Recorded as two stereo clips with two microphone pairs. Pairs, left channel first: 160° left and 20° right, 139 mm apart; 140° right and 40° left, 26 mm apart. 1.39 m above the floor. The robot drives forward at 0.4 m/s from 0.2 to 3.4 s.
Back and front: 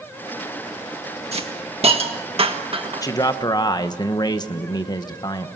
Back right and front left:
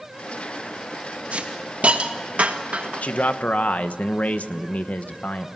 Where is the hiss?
15° left, 1.9 m; by 3.0 s 25° left, 1.3 m.